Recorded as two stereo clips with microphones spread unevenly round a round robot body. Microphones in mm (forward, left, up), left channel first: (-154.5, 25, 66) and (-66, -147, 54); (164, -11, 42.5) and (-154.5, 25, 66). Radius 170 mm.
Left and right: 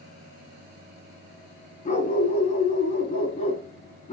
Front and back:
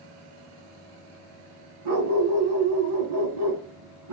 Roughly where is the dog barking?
Behind.